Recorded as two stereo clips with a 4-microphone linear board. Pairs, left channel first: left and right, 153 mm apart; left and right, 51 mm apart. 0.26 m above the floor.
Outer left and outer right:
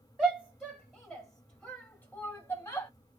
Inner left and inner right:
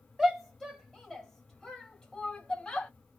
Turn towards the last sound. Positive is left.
turn(degrees=15)  # may be behind; listen again after turning